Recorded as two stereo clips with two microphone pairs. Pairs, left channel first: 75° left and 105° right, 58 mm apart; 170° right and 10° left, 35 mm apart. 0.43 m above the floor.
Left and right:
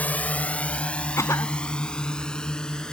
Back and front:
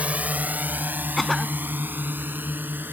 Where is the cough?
105° left.